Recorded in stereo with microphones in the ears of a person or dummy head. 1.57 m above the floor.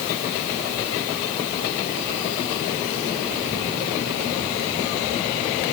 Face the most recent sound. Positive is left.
No sound to turn to.